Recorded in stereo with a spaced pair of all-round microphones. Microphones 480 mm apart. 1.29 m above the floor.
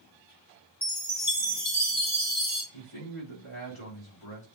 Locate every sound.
0.8 s a chime: 20° left (ahead or behind), 2 m
2.7 s a man speaking: 75° left (ahead or behind), 3.5 m